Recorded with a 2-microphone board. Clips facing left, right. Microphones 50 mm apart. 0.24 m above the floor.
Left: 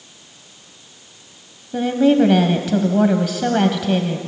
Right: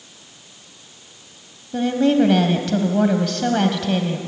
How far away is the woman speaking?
About 1.3 m.